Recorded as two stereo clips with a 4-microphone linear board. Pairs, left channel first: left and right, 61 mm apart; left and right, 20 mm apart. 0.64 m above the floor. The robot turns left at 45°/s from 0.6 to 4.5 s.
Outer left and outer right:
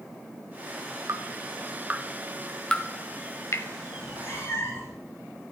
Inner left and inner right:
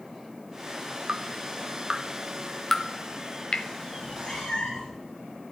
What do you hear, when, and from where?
1.1 s dripping: 55° right (ahead or behind), 0.9 m; by 3.7 s 55° left (ahead or behind), 0.9 m
4.0 s a cat meowing: 60° left (ahead or behind), 6 m; by 5.0 s 35° left (ahead or behind), 6 m